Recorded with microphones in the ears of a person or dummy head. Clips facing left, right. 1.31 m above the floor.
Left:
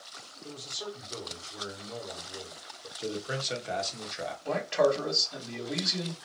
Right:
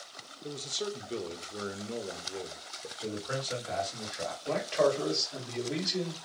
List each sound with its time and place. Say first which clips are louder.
0.4 s a man speaking: right 4 dB; 35° right (ahead or behind), 0.6 m
3.0 s a man speaking: left 1 dB; 35° left (ahead or behind), 1.1 m
4.5 s a man speaking: left 2 dB; 10° left (ahead or behind), 1.7 m